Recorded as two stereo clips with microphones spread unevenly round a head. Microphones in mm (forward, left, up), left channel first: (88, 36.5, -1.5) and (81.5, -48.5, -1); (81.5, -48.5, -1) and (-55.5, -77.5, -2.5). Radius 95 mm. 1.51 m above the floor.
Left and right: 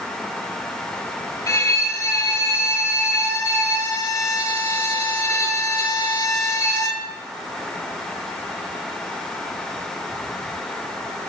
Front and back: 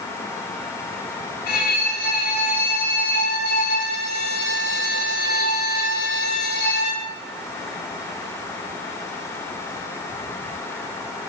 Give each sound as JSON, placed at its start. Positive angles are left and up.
{"t": 1.5, "sound": "a violin", "azimuth_deg": 40, "distance_m": 5.5}